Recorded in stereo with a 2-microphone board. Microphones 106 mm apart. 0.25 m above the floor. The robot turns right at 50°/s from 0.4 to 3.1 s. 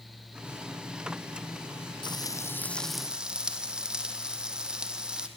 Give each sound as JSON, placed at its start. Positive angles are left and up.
{"t": 2.0, "sound": "frying", "azimuth_deg": 135, "distance_m": 2.0}